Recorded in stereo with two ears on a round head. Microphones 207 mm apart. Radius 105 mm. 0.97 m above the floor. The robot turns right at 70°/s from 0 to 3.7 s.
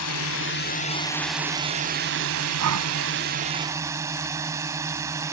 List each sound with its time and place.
0.0 s a drone: 90° left; by 5.3 s 15° right
2.6 s breathing: 70° right (ahead or behind); by 2.9 s 85° right